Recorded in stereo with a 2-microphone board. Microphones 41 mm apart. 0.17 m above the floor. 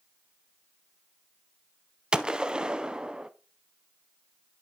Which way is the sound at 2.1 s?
25° right (ahead or behind).